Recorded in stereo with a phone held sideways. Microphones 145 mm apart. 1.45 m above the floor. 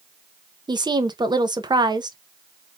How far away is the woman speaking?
About 0.7 m.